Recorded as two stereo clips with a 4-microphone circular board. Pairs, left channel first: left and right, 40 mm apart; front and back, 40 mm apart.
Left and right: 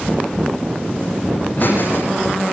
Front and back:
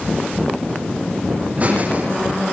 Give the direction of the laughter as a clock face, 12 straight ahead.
8 o'clock.